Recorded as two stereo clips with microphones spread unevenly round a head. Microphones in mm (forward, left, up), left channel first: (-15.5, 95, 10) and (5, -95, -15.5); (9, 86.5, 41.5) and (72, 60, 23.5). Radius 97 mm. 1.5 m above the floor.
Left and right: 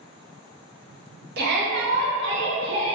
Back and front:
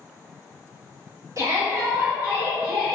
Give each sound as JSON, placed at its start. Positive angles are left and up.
{"t": 1.4, "sound": "a shout", "azimuth_deg": -60, "distance_m": 0.8}